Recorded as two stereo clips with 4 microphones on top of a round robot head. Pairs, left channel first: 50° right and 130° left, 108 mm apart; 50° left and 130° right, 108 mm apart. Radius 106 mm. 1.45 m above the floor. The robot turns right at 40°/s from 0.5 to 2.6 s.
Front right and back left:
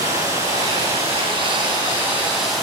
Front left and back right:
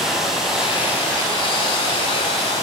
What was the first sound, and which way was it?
Running water, 140° left.